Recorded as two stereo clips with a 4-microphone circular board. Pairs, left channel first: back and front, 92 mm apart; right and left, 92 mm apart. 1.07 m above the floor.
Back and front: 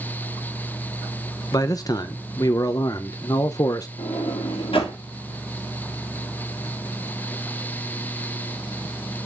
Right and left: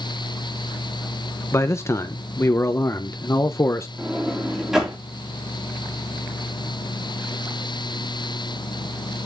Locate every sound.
1.5 s a man speaking: 145° right, 0.6 m
4.0 s a sliding door: 175° left, 3 m